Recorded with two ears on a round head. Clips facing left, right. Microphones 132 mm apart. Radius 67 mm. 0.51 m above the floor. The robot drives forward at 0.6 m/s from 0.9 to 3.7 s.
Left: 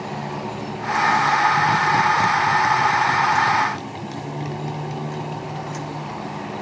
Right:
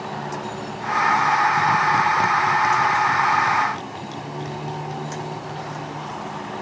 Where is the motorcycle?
10° left (ahead or behind).